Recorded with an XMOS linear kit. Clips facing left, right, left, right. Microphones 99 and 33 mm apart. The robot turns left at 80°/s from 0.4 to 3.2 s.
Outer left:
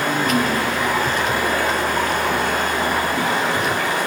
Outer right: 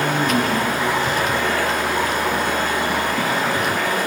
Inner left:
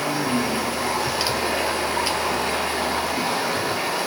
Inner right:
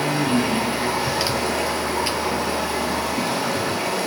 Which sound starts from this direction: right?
Running water, at 0.0 s.